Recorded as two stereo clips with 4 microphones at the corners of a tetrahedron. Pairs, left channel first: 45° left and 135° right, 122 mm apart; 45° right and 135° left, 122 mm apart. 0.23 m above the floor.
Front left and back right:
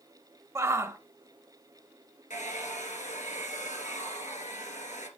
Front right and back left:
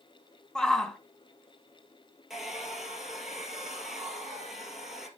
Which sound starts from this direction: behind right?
A shout, at 0.6 s.